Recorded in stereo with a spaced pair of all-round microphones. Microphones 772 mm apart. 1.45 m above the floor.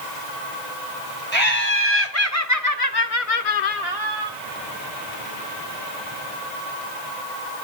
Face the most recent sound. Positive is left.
turn(degrees=25)  # may be behind; listen again after turning